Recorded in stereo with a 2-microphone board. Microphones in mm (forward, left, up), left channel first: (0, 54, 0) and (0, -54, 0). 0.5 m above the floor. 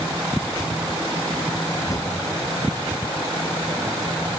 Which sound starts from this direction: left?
A drawer, at 1.9 s.